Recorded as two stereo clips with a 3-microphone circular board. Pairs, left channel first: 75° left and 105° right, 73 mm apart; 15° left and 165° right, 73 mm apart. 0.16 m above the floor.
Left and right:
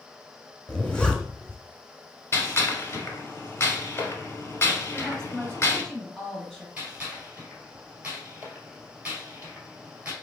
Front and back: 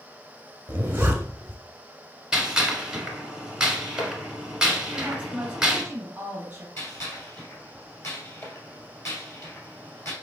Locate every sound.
0.7 s a zipper: 145° left, 1.2 m
2.3 s a gunshot: 115° left, 1.2 m
4.9 s a woman speaking: 155° left, 1.6 m
6.8 s a gunshot: 30° right, 2 m